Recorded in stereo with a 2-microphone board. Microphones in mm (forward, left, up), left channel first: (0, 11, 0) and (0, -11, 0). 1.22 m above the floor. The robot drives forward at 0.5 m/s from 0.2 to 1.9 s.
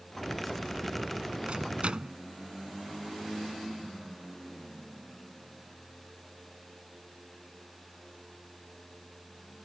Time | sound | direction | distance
1.5 | a microwave | 55° right (ahead or behind) | ?